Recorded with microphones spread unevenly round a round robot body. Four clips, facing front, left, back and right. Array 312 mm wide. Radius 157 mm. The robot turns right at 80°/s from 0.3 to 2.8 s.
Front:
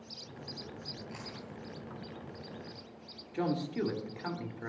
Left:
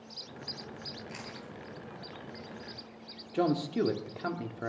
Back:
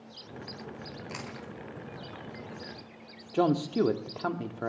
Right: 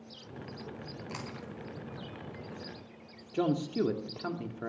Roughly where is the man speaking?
Behind.